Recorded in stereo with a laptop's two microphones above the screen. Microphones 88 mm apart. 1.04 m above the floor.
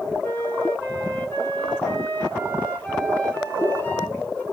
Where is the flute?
20° left (ahead or behind), 0.9 m.